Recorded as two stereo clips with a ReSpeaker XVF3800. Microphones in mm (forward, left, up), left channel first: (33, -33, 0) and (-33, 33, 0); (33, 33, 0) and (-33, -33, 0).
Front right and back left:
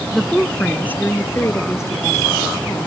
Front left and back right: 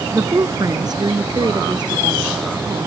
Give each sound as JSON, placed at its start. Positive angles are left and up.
{"t": 0.1, "sound": "a woman speaking", "azimuth_deg": -140}